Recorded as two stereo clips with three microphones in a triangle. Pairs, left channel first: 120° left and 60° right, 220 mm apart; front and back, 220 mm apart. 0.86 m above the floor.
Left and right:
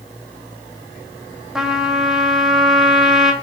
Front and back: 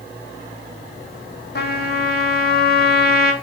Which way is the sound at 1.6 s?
25° left.